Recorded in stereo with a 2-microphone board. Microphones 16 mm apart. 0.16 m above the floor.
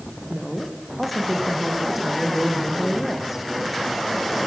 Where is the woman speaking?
5° left (ahead or behind), 7.5 m; by 3.5 s 30° right (ahead or behind), 6 m.